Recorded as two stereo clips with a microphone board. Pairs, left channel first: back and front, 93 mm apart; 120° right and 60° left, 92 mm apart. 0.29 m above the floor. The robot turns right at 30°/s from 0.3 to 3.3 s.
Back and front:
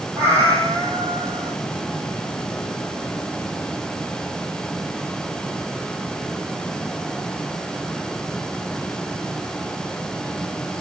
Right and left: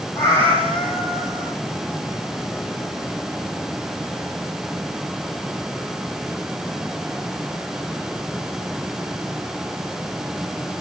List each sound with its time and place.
0.1 s a cat meowing: 55° right, 3 m; by 1.6 s 20° right, 3 m